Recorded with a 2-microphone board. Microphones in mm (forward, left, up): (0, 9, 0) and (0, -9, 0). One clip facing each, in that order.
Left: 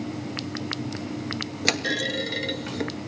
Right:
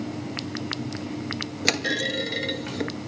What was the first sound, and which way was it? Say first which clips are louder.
A clunk: even; centre (ahead or behind).